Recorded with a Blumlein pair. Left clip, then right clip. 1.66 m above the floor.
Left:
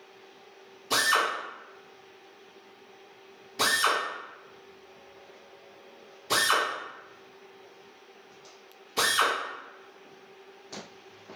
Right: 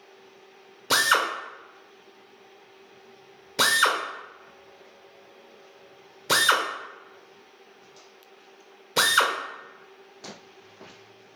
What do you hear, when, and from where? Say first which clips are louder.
0.9 s a drill: right 3 dB; 45° right, 0.9 m